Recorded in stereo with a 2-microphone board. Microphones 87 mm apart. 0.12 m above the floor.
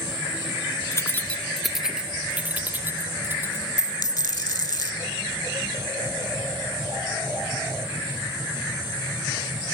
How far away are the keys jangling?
About 0.9 m.